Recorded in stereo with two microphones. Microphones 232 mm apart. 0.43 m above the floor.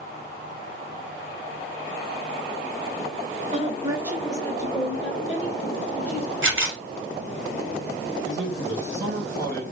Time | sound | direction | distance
3.5 | a woman speaking | 35° right (ahead or behind) | 1.2 m
6.4 | a camera shutter | 60° right (ahead or behind) | 1.4 m
8.2 | a man speaking | 50° right (ahead or behind) | 2.0 m